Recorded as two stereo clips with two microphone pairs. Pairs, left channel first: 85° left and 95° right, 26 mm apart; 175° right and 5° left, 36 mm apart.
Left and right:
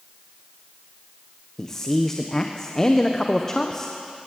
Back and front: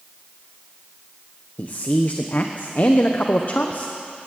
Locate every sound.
1.6 s a man speaking: 150° left, 1.1 m